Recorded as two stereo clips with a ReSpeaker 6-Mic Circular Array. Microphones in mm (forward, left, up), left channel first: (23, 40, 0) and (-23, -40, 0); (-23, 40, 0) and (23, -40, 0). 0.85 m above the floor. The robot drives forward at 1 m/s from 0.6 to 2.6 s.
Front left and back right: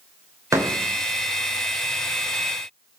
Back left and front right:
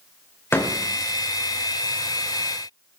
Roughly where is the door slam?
Behind.